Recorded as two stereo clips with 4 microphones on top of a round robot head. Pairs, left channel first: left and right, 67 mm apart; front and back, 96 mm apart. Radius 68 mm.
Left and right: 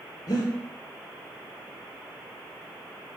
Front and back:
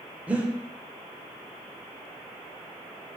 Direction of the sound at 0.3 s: 110° left.